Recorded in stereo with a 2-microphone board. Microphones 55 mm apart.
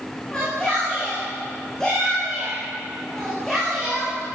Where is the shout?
15° left (ahead or behind), 9 m; by 4.2 s centre (ahead or behind), 9 m.